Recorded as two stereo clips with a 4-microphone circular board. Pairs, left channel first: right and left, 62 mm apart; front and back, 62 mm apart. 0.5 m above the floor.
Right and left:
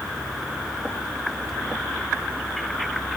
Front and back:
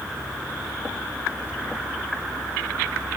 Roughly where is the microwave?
No microwave in this recording.